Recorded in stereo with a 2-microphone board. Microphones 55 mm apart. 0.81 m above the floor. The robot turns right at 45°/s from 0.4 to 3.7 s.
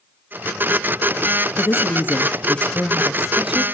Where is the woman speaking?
110° left, 0.8 m; by 3.6 s 155° right, 0.8 m.